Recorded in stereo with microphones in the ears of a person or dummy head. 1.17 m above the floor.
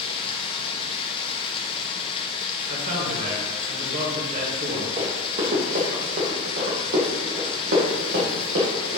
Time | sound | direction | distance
0.0 | running water | 35° left (ahead or behind) | 0.9 m
2.7 | a man speaking | 45° right (ahead or behind) | 1.9 m
5.0 | running footsteps | 30° right (ahead or behind) | 2.5 m